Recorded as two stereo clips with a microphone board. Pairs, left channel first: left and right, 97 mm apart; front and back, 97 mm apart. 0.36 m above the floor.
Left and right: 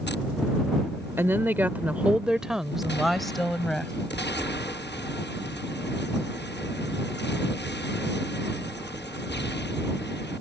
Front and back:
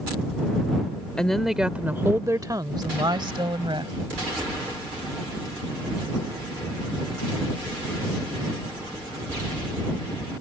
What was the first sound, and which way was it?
A woman speaking, 70° right.